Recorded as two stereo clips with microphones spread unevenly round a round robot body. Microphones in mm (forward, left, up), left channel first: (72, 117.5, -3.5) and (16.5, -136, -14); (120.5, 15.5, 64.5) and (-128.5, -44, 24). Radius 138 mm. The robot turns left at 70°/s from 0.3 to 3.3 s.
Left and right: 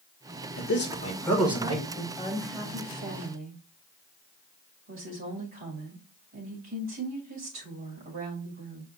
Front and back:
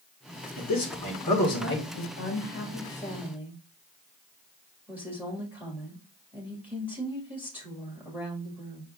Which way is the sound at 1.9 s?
5° left.